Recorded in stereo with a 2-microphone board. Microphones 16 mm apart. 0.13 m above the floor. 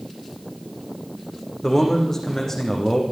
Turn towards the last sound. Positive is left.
turn(degrees=25)  # may be behind; listen again after turning